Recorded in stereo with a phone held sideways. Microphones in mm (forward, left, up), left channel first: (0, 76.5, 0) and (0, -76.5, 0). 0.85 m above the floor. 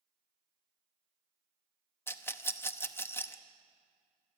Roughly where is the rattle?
Centre.